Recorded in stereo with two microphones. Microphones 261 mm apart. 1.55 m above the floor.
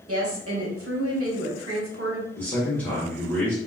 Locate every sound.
0.1 s a woman speaking: 60° right (ahead or behind), 1.2 m
2.4 s a man speaking: 5° left (ahead or behind), 1.1 m